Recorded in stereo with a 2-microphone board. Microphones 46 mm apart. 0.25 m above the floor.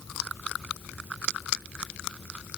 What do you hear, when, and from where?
Only background noise.